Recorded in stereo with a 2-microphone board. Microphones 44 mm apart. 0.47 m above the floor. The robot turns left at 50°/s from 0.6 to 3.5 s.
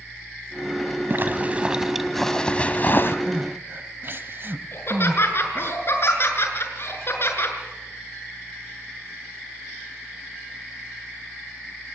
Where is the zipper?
130° right, 1.3 m; by 3.2 s 125° left, 1.3 m.